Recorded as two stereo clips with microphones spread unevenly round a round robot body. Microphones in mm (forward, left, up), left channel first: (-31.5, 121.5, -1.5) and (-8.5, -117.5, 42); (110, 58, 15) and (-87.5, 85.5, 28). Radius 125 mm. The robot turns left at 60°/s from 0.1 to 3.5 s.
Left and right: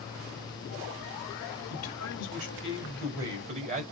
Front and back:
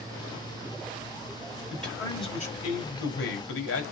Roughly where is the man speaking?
Left.